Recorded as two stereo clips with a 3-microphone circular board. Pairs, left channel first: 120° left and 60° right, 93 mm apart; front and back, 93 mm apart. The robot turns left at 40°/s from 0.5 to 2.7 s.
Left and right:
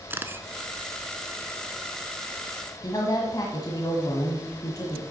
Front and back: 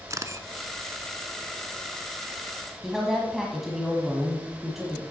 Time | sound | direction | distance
0.1 | a camera shutter | 125° right | 0.8 m
2.8 | a woman speaking | 95° left | 1.4 m